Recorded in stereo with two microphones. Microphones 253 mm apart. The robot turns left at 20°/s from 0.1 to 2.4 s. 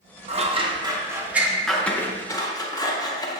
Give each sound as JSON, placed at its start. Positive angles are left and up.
{"t": 0.3, "sound": "scissors", "side_deg": -25, "distance_m": 0.5}